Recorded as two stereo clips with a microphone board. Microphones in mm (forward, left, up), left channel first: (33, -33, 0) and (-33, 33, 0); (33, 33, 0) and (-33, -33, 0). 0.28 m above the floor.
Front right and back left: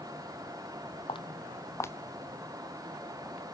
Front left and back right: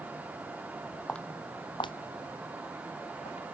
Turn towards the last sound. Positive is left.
turn(degrees=50)